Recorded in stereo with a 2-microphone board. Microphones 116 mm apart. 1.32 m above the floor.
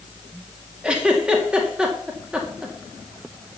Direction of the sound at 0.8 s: 10° right (ahead or behind).